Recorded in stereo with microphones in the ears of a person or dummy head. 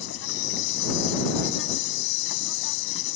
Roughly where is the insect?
Left.